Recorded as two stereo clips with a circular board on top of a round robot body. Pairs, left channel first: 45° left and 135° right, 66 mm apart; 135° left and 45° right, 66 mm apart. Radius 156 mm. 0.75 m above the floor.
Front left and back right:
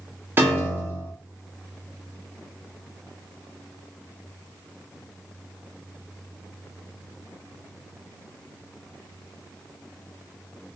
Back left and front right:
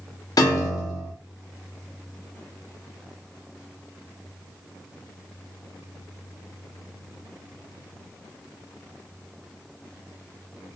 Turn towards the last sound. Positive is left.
turn(degrees=165)